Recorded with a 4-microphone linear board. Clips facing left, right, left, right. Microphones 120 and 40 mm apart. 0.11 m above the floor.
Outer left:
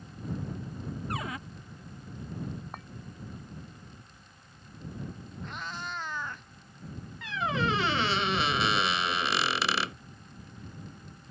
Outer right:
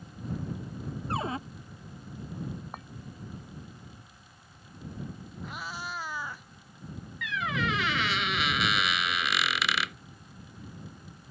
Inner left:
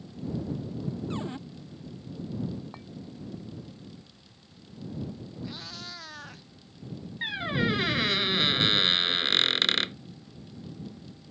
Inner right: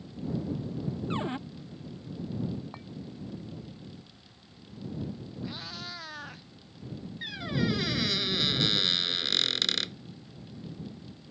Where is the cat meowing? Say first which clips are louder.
Even, inner right 2 dB; 5° right (ahead or behind).